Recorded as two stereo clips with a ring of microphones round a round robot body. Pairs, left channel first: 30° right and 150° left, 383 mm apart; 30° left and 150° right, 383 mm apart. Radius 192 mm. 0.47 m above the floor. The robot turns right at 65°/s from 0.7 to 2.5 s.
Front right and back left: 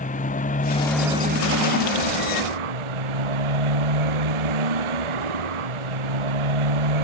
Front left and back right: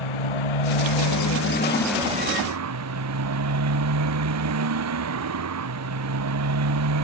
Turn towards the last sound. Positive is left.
turn(degrees=160)